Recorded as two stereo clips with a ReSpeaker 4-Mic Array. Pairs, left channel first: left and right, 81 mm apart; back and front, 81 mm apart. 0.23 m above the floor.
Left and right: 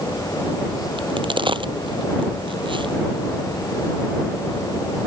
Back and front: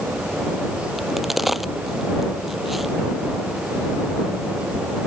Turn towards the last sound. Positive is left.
turn(degrees=-90)